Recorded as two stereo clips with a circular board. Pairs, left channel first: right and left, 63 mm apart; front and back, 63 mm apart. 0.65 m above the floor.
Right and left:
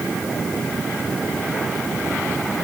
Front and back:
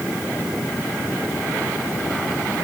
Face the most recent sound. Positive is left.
No sound to turn to.